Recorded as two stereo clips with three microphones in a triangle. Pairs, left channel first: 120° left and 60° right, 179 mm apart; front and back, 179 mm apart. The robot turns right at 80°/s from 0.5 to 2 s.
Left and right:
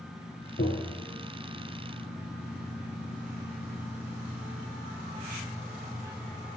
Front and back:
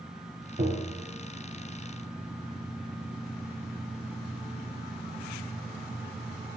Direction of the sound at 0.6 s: 145° left.